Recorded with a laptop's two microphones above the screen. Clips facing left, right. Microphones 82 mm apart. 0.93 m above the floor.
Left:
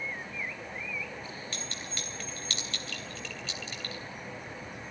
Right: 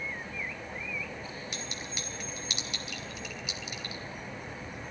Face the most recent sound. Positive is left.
turn(degrees=-15)  # may be behind; listen again after turning